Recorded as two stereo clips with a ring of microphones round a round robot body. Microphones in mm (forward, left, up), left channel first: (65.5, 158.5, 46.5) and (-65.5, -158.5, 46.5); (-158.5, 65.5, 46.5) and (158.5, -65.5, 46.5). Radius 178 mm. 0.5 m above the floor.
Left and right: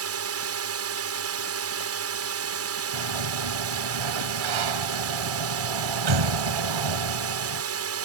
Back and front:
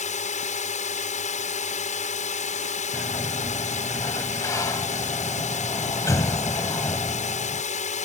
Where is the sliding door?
120° right.